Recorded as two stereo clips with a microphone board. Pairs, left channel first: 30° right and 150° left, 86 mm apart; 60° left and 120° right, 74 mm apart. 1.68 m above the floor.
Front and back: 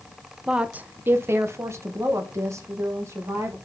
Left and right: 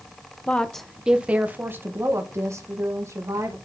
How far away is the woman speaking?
About 0.6 m.